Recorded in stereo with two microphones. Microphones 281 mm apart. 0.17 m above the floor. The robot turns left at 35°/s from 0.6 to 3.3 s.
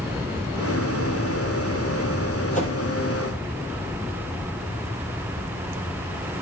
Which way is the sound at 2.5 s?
25° left (ahead or behind).